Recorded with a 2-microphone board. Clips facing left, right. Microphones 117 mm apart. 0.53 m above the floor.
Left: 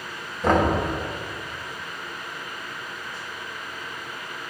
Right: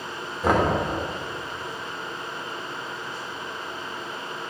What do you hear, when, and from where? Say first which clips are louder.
0.4 s knocking: left 1 dB; 5° right (ahead or behind), 1.5 m